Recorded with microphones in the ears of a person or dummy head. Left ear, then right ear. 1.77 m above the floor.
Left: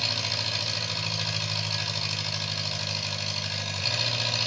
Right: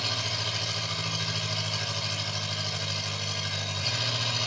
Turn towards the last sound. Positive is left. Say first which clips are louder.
# left 2 dB
turn(degrees=20)  # may be behind; listen again after turning